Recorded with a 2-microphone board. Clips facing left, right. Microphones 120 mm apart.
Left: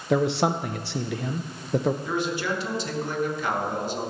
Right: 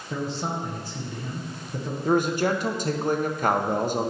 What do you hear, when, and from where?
0.1 s a man speaking: 75° left (ahead or behind), 0.6 m
2.0 s a man speaking: 45° right (ahead or behind), 1.0 m